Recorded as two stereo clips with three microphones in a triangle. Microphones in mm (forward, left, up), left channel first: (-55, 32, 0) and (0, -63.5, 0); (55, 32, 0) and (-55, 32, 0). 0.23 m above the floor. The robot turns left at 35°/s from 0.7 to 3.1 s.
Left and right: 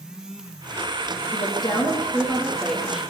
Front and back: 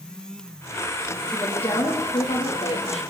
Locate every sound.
1.3 s a woman speaking: 85° left, 8 m; by 3.0 s 25° left, 8 m